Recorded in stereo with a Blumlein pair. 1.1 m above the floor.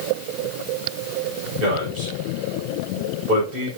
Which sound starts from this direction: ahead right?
A man speaking, at 1.6 s.